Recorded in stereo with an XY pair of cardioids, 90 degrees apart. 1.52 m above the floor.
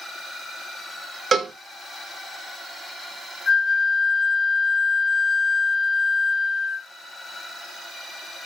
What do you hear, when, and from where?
1.3 s a cowbell: 50° right, 1.4 m
3.5 s a flute: 50° left, 1.1 m